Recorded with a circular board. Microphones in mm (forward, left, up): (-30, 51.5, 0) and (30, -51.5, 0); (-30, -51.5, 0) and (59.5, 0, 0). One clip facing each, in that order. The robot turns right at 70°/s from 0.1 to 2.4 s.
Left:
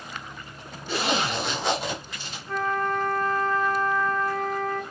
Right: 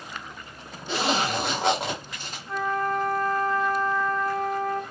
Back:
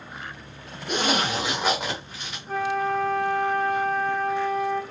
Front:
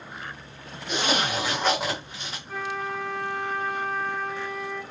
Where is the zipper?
125° right, 1.0 m; by 2.4 s 20° right, 1.0 m.